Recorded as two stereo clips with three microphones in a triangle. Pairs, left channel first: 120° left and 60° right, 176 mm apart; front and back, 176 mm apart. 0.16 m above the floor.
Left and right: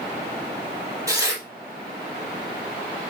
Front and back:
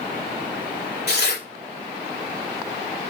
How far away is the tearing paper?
About 3.5 m.